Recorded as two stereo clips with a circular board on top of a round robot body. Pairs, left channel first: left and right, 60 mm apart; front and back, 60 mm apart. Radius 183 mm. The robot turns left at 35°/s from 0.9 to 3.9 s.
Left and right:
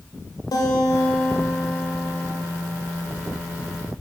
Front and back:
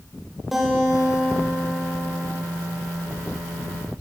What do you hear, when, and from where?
0.5 s a guitar: 95° left, 1.2 m; by 2.3 s 45° left, 1.2 m